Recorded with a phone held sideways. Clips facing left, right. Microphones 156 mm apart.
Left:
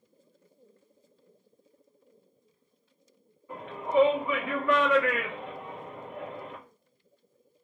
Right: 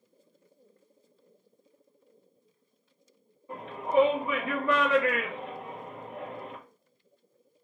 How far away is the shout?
About 1.6 m.